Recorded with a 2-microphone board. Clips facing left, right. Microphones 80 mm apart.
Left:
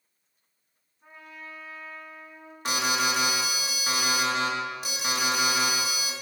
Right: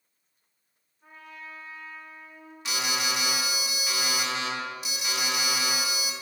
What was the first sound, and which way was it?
A trumpet, 5° left (ahead or behind).